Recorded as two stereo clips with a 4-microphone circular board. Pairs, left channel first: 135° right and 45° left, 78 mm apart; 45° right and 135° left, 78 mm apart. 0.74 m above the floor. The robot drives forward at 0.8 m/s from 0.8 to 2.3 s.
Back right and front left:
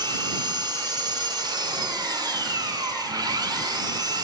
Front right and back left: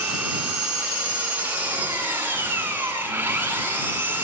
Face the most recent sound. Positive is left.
turn(degrees=70)